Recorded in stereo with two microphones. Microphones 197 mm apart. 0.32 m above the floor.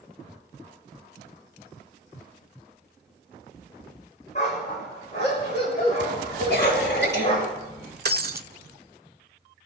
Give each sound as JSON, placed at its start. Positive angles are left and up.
{"t": 4.3, "sound": "a dog barking", "side_deg": 40, "distance_m": 10.0}
{"t": 6.5, "sound": "a cough", "side_deg": 70, "distance_m": 6.5}
{"t": 8.1, "sound": "breaking glass", "side_deg": -60, "distance_m": 0.5}